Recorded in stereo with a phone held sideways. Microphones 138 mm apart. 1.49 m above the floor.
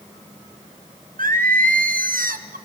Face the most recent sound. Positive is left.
turn(degrees=-85)